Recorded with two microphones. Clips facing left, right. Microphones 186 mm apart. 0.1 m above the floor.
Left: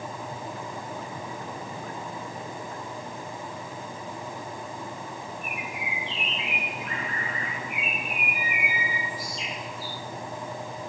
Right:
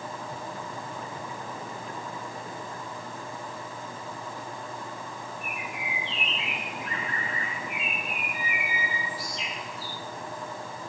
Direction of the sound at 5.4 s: 75° right (ahead or behind).